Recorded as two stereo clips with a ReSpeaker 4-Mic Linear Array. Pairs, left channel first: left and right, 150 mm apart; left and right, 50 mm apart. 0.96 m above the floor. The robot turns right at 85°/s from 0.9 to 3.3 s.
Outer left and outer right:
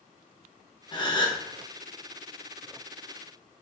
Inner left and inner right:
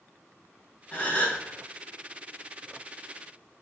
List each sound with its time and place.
0.9 s a gasp: 80° left, 0.6 m; by 1.4 s 120° left, 0.6 m